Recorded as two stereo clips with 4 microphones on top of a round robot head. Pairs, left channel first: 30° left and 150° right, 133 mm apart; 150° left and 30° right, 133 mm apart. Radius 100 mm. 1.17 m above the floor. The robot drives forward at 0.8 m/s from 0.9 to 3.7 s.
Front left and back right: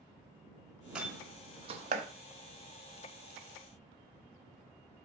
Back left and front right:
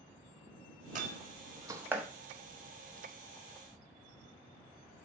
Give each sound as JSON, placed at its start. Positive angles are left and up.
{"t": 0.9, "sound": "a door slam", "azimuth_deg": -65, "distance_m": 1.1}